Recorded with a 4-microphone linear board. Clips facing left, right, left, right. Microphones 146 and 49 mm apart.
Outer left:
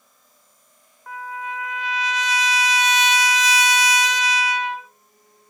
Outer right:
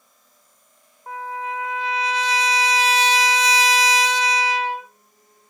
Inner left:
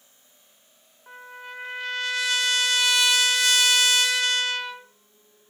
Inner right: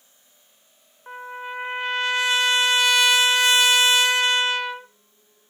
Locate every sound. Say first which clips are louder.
1.1 s a trumpet: outer right 3 dB, inner right 7 dB; 30° right (ahead or behind), 1.1 m